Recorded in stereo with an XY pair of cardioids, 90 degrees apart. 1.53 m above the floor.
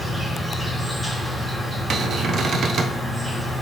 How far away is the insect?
About 2.5 m.